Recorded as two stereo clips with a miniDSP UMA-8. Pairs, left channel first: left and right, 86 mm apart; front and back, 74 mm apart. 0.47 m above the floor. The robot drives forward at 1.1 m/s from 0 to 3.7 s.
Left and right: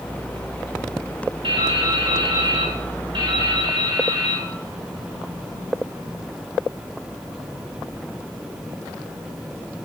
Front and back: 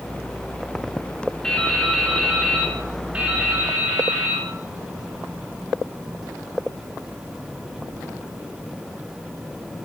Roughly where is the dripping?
Right.